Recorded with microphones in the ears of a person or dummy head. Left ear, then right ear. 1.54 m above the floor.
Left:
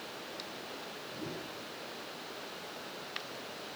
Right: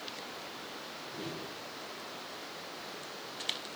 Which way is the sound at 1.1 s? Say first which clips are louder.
Right 2 dB; 35° right (ahead or behind).